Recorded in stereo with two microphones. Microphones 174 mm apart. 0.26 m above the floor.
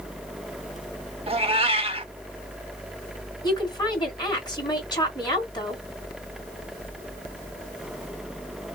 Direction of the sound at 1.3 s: 35° right (ahead or behind).